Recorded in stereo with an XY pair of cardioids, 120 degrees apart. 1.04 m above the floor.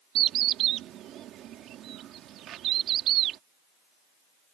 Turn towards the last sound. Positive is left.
turn(degrees=-65)